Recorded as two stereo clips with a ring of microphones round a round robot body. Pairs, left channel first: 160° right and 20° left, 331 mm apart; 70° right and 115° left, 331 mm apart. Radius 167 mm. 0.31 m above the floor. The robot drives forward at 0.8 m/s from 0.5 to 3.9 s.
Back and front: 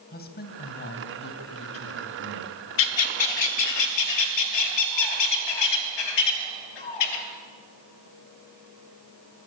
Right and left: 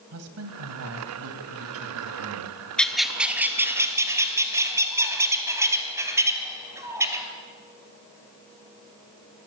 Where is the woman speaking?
145° left, 2.5 m; by 2.6 s 160° left, 3.5 m.